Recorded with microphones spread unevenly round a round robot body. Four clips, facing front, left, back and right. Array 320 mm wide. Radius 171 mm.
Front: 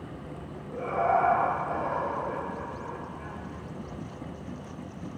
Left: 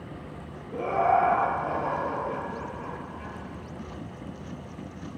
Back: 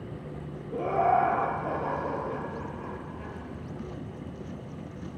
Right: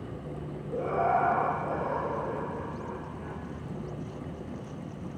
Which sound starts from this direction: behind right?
Laughter, at 0.7 s.